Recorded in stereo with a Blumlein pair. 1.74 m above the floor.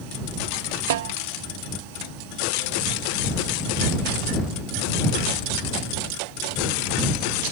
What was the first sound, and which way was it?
A snare drum, 55° right.